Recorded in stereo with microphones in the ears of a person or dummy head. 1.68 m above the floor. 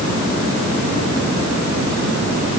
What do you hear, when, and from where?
Only background noise.